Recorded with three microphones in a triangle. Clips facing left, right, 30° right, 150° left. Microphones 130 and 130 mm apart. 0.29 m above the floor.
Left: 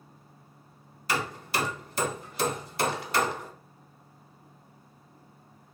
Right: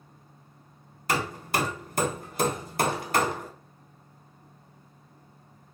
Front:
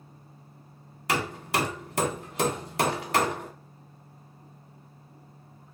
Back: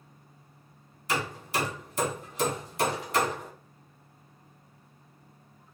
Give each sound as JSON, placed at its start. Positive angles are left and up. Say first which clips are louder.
{"t": 1.1, "sound": "hammering", "louder": "right 2 dB, front 3 dB", "azimuth_deg": -50, "distance_m": 0.8}